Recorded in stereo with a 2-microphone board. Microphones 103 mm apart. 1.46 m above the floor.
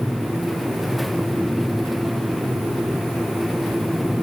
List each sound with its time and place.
Only background noise.